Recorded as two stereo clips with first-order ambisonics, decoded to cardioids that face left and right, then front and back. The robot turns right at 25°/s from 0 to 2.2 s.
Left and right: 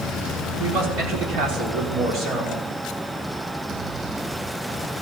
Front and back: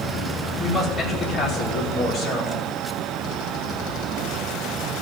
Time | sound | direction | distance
0.6 | a man speaking | 85° right | 5 m